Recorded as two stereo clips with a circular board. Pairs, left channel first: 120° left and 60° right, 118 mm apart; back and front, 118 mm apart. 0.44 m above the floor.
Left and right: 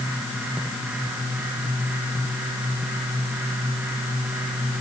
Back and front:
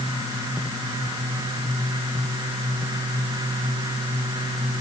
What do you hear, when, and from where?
Only background noise.